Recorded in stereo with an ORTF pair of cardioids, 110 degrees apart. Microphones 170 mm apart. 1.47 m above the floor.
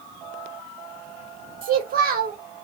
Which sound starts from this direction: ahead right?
A child speaking, at 1.6 s.